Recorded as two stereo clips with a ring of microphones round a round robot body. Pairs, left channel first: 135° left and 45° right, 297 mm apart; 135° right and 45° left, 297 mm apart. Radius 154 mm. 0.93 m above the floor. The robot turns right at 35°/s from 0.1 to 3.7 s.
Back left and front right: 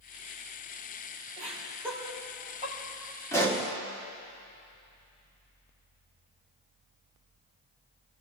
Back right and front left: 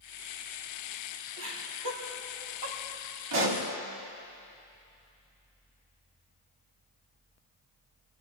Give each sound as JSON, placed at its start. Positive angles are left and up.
{"t": 1.4, "sound": "laughter", "azimuth_deg": 20, "distance_m": 5.5}
{"t": 3.3, "sound": "a pop", "azimuth_deg": 55, "distance_m": 2.5}